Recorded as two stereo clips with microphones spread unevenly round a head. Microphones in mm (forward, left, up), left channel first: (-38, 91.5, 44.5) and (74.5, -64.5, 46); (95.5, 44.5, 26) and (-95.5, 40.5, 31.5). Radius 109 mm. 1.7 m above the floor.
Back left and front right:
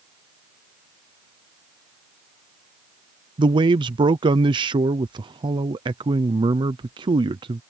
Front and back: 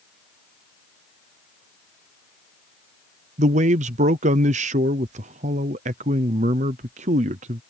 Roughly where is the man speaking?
Behind right.